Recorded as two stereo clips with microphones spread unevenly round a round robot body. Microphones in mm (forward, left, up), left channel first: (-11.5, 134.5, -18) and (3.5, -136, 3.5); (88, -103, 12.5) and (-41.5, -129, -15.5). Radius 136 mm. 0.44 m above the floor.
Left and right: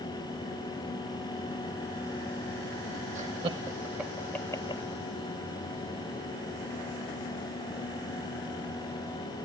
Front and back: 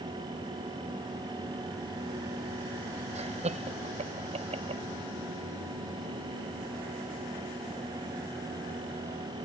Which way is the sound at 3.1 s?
155° right.